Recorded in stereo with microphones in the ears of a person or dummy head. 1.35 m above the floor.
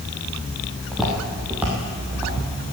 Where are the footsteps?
5° left (ahead or behind), 2 m; by 2.4 s 5° right (ahead or behind), 3 m.